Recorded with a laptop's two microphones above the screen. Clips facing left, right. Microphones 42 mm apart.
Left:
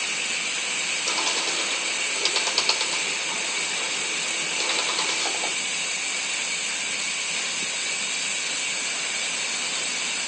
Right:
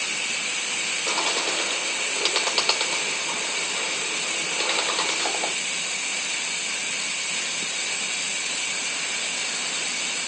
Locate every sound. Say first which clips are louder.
1.1 s a bird: right 3 dB; 30° right (ahead or behind), 2 m